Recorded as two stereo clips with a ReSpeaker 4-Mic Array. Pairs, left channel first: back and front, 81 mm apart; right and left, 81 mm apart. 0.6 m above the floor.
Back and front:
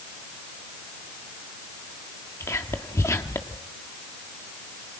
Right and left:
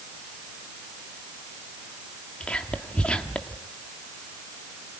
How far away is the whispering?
About 1.3 m.